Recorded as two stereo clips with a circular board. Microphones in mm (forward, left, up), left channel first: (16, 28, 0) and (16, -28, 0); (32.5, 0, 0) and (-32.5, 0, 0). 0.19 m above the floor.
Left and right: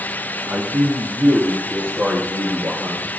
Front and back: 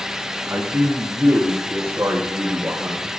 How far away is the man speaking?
About 2.5 m.